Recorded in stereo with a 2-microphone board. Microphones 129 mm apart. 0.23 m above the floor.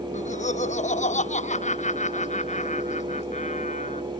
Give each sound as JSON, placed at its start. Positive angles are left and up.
{"t": 0.1, "sound": "laughter", "side_deg": 65}